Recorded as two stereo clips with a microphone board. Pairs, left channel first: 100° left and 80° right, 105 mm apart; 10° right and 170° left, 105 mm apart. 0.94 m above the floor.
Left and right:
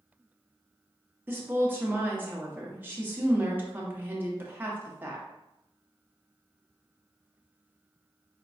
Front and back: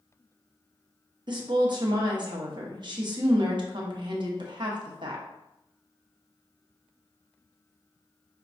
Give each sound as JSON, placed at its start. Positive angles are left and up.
{"t": 1.3, "sound": "a woman speaking", "azimuth_deg": -150, "distance_m": 0.9}